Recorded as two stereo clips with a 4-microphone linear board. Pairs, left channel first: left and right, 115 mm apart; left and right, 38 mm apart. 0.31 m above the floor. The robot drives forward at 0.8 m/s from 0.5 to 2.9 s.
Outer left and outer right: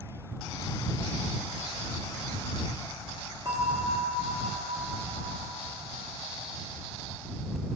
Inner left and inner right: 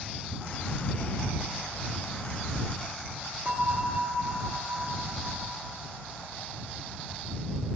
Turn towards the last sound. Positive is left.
turn(degrees=-50)  # may be behind; listen again after turning